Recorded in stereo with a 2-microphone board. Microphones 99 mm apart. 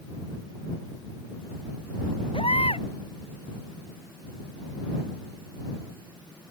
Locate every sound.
2.3 s a baby crying: 85° left